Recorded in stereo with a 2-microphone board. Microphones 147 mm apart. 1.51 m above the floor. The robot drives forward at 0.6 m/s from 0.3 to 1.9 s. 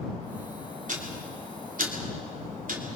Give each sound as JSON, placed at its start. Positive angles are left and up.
{"t": 0.9, "sound": "ticking", "side_deg": -60, "distance_m": 3.5}